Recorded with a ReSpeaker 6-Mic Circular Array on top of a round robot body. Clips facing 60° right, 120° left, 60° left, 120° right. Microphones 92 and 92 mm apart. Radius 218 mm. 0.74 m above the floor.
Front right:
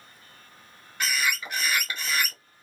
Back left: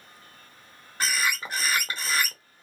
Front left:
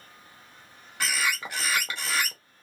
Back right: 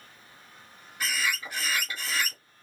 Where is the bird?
65° left, 1.3 m.